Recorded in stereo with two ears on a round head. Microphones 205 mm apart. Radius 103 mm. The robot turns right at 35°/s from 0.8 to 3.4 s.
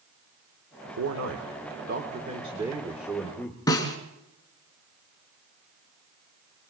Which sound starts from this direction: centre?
A snare drum, at 3.7 s.